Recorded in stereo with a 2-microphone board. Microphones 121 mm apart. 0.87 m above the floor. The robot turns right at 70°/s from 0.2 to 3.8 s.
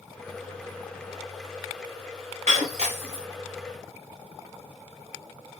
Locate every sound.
2.5 s breaking glass: 60° right (ahead or behind), 1.4 m; by 3.2 s 45° right (ahead or behind), 1.4 m